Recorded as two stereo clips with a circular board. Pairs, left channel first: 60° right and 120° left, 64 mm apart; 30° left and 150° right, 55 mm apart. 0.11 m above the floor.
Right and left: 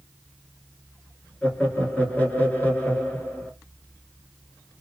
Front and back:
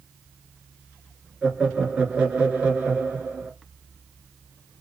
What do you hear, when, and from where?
1.4 s laughter: 95° right, 1.4 m